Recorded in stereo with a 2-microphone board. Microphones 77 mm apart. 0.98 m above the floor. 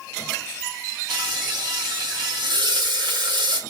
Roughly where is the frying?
Right.